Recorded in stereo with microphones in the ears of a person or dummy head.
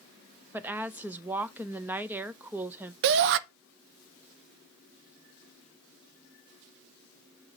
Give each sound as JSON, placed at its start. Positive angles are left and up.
{"t": 0.5, "sound": "a woman speaking", "side_deg": -10, "distance_m": 0.7}
{"t": 3.0, "sound": "a shout", "side_deg": -65, "distance_m": 0.7}